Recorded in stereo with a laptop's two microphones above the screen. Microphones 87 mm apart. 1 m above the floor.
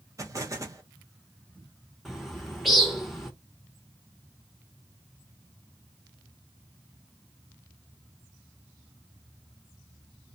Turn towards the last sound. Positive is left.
turn(degrees=0)  # may be behind; listen again after turning